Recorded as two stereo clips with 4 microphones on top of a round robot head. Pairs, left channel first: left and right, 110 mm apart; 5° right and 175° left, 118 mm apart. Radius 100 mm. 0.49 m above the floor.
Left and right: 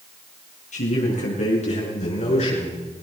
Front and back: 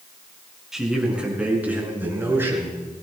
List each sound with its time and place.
0.7 s a man speaking: 90° left, 5 m; by 2.8 s 110° left, 7.5 m